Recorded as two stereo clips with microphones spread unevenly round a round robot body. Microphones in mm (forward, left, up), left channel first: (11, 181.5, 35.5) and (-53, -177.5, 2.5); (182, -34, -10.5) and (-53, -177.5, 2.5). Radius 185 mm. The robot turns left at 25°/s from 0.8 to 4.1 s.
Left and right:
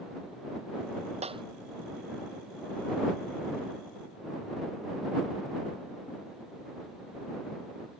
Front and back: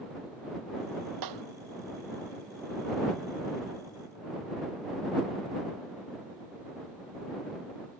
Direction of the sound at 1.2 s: 175° right.